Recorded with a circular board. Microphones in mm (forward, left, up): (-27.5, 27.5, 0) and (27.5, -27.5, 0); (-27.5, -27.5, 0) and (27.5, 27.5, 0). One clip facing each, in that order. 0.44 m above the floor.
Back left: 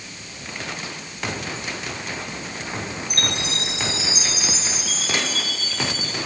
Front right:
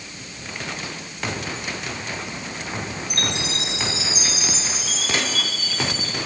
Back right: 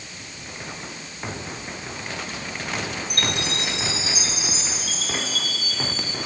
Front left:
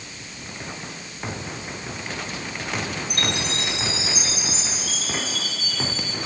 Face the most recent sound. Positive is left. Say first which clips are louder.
# even, back right 1 dB
turn(degrees=-175)